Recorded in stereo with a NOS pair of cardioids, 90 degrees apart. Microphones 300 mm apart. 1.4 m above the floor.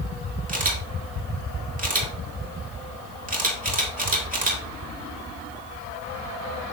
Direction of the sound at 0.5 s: 25° right.